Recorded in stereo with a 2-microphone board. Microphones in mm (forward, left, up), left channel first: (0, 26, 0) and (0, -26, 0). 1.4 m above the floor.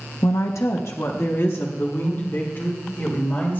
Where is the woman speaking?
80° left, 0.7 m; by 3.6 s 45° left (ahead or behind), 3 m.